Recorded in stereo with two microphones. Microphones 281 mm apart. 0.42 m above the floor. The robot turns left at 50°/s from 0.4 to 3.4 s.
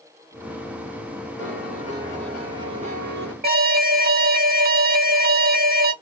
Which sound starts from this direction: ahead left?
A piano, at 1.4 s.